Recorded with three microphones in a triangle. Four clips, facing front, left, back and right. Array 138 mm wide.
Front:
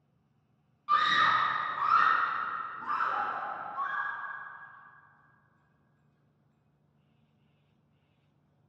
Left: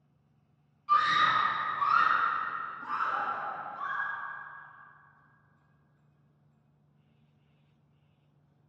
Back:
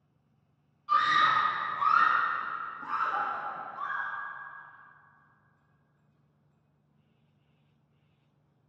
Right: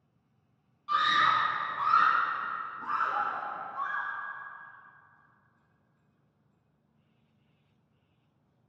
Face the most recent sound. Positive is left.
turn(degrees=-40)